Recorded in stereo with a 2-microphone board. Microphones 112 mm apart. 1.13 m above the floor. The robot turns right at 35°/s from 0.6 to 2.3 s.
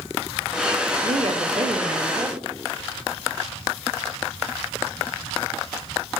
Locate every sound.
1.0 s a woman speaking: 80° right, 1.4 m; by 2.4 s 35° right, 1.4 m